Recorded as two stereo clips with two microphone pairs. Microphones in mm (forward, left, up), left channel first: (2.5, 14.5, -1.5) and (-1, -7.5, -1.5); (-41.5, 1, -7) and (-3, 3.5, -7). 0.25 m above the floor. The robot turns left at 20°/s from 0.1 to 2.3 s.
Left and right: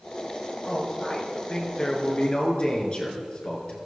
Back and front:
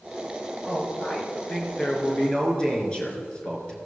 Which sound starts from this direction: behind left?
A man speaking, at 0.7 s.